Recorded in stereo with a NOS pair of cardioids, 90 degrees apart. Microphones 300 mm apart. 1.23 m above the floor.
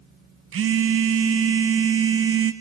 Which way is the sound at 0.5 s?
45° right.